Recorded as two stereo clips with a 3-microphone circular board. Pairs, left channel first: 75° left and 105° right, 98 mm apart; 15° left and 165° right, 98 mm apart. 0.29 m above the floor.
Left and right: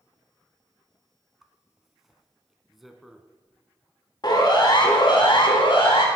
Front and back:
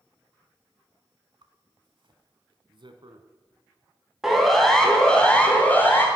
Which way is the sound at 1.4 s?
170° left.